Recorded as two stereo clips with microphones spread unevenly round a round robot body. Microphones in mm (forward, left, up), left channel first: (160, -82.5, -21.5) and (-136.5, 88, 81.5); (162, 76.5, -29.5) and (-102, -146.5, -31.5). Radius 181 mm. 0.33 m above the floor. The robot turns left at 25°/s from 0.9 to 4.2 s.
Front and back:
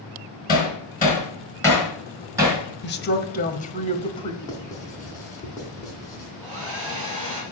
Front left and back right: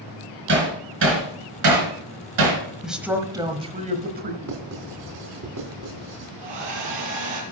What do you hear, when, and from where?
0.5 s hammering: 85° right, 3 m; by 2.6 s 130° right, 3 m
2.8 s a woman speaking: 50° right, 1.2 m; by 4.3 s 85° right, 1.2 m
4.4 s writing: 100° right, 3 m
6.4 s a hair dryer: 140° right, 4.5 m